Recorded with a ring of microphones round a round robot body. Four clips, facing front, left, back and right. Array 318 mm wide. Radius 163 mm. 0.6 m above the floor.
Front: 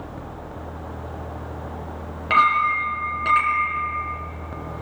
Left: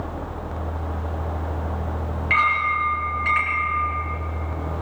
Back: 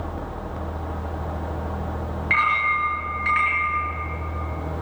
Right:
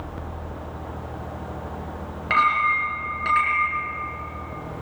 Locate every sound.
2.3 s a clink: 35° right, 6.5 m